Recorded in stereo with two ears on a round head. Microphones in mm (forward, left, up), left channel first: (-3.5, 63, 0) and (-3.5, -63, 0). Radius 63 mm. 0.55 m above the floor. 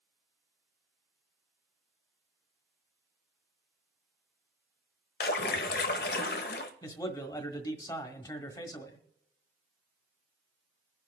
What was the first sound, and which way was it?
A splash, 80° left.